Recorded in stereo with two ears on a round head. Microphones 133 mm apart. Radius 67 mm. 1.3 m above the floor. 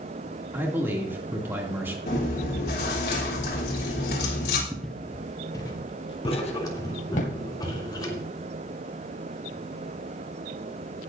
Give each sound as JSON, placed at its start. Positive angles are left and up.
{"t": 0.5, "sound": "a man speaking", "side_deg": -15, "distance_m": 2.5}
{"t": 2.1, "sound": "chewing", "side_deg": 75, "distance_m": 3.5}
{"t": 4.7, "sound": "footsteps", "side_deg": 0, "distance_m": 1.4}
{"t": 6.2, "sound": "writing", "side_deg": 30, "distance_m": 3.0}